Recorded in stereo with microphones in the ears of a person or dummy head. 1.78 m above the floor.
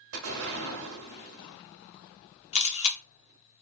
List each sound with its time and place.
0.1 s an explosion: 75° right (ahead or behind), 0.9 m
2.5 s a camera shutter: 40° left (ahead or behind), 0.6 m